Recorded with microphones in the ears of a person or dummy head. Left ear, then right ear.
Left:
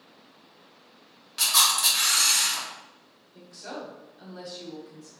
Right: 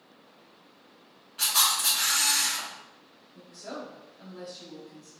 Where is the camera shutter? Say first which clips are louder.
Left 3 dB; 45° left (ahead or behind), 1.4 m.